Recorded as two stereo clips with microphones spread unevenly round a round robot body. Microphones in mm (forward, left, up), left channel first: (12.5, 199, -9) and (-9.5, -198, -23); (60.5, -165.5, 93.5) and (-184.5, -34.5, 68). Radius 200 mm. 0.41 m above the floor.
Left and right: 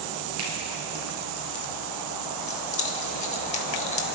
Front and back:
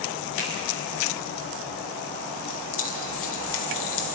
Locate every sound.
0.4 s a finger snap: 150° right, 5.5 m
2.5 s keys jangling: 15° left, 1.4 m